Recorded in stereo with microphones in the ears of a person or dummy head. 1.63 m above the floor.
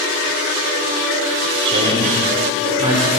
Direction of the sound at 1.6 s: 25° right (ahead or behind).